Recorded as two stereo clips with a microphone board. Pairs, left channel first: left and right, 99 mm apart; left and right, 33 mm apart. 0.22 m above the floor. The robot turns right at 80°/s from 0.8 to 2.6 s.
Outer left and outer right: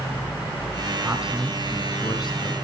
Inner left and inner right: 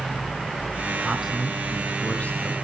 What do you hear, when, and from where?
1.0 s a man speaking: 25° right, 1.9 m; by 2.5 s 95° left, 1.9 m